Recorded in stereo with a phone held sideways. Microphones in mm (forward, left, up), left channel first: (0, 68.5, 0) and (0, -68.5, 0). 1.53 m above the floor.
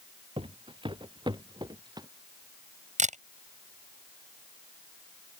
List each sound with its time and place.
0.4 s footsteps: 40° right (ahead or behind); by 2.1 s 30° right (ahead or behind)
3.0 s a camera shutter: 60° right (ahead or behind)